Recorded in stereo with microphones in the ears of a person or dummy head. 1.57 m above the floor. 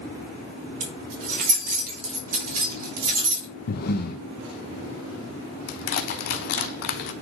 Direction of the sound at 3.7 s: 50° left (ahead or behind).